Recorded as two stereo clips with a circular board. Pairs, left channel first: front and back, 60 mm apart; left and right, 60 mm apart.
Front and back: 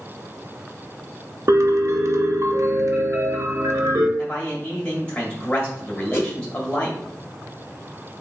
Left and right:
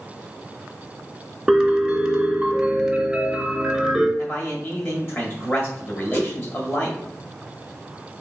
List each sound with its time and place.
1.5 s a piano: 170° right, 0.6 m
4.2 s a man speaking: 55° left, 1.7 m
6.1 s a whoosh: 45° left, 1.0 m